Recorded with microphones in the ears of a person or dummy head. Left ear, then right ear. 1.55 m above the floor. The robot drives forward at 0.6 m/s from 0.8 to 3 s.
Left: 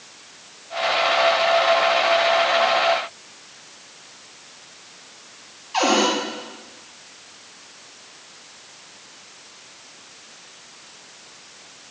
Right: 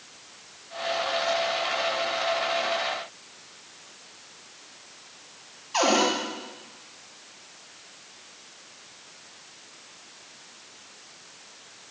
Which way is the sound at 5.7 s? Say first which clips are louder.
Left 3 dB; centre (ahead or behind).